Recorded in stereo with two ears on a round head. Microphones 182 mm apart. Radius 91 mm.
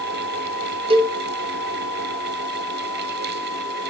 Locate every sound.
0.9 s a cowbell: 25° right (ahead or behind), 1.1 m